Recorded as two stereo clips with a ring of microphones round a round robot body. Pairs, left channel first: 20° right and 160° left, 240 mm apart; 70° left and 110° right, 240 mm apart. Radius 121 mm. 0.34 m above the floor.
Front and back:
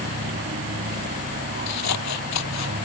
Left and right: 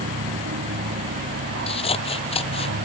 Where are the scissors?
Straight ahead.